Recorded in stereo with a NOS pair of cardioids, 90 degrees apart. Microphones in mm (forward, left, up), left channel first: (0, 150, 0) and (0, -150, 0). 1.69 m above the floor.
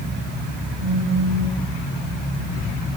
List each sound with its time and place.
0.8 s a phone buzzing: 50° right, 7.5 m